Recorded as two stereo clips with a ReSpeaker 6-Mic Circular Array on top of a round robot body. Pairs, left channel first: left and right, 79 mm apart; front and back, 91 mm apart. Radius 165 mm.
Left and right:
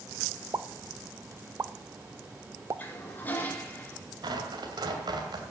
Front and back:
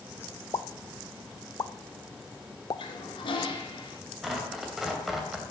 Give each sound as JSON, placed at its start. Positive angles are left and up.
{"t": 0.5, "sound": "a pop", "azimuth_deg": -40, "distance_m": 0.6}
{"t": 2.8, "sound": "a toilet flushing", "azimuth_deg": 25, "distance_m": 2.0}
{"t": 4.2, "sound": "tearing paper", "azimuth_deg": -95, "distance_m": 2.5}